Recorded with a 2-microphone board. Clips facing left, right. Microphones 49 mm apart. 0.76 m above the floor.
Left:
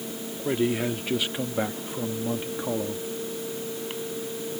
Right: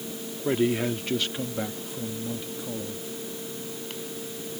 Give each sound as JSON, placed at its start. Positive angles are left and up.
{"t": 0.5, "sound": "a man speaking", "side_deg": -5}